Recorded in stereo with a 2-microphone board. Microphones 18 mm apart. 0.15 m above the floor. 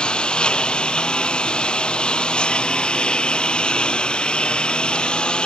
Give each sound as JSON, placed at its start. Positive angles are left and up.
{"t": 0.0, "sound": "a lawn mower", "side_deg": 65}